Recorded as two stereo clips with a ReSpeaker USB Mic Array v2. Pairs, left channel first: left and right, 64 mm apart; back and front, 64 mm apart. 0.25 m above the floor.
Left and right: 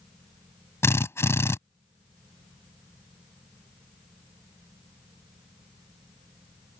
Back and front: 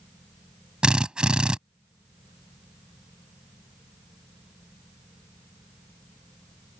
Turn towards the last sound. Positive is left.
turn(degrees=70)